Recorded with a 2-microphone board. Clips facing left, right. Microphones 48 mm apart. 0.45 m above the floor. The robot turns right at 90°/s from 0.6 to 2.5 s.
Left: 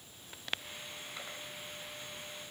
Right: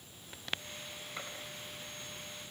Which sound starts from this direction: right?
A gunshot, at 1.2 s.